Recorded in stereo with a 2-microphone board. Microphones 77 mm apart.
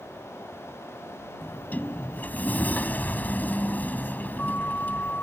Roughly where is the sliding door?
Left.